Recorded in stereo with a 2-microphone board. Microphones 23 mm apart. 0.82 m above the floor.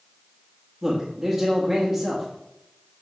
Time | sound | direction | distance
0.8 | a man speaking | 25° right (ahead or behind) | 1.5 m